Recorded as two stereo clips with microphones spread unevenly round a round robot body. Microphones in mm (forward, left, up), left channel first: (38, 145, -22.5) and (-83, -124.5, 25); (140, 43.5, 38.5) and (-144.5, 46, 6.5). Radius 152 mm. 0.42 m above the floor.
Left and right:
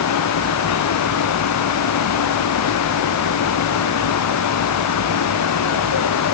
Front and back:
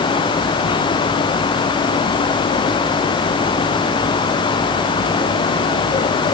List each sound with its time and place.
Only background noise.